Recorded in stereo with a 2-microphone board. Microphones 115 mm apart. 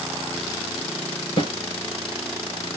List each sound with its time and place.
1.4 s a snare drum: 45° left (ahead or behind), 2 m